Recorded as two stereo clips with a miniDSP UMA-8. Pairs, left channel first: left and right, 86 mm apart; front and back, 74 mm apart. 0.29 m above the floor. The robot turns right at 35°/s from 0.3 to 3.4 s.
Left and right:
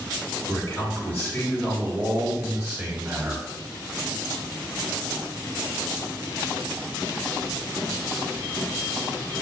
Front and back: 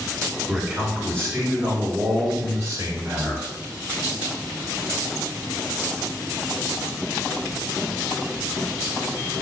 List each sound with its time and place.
0.5 s a man speaking: 120° left, 1.9 m; by 3.5 s 140° right, 1.9 m